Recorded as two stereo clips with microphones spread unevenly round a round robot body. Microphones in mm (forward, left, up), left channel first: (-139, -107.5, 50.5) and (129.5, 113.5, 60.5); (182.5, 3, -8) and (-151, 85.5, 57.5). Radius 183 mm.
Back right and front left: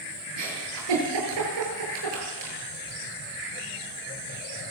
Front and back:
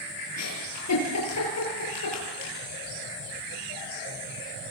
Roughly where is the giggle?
Ahead left.